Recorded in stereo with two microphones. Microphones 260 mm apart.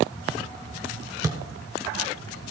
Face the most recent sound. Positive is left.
turn(degrees=-15)  # may be behind; listen again after turning